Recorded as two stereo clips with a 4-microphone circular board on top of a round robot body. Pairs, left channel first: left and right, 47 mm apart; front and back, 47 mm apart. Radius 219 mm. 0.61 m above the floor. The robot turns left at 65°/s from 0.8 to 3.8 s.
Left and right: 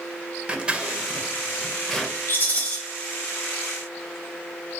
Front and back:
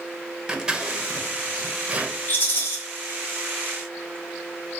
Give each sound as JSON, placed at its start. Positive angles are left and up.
{"t": 0.5, "sound": "scissors", "azimuth_deg": -125, "distance_m": 0.9}
{"t": 2.3, "sound": "a rattle", "azimuth_deg": 50, "distance_m": 0.8}